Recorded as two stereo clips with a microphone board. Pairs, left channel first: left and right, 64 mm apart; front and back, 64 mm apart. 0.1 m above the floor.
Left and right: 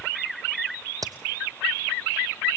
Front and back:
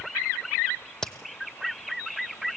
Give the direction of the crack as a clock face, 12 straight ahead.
3 o'clock.